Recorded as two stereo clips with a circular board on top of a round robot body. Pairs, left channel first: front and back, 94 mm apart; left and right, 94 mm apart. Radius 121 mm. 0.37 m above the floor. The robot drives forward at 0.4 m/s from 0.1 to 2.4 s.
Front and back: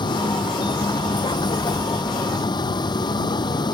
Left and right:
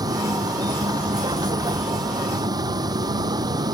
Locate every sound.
0.0 s a vehicle: 40° right